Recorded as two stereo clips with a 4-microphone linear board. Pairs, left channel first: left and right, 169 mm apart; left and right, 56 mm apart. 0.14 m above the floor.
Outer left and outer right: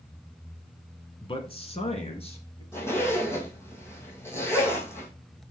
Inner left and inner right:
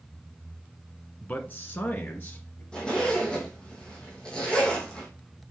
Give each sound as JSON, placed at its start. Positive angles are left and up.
{"t": 1.2, "sound": "a man speaking", "side_deg": 30, "distance_m": 1.3}
{"t": 2.7, "sound": "a zipper", "side_deg": 15, "distance_m": 3.5}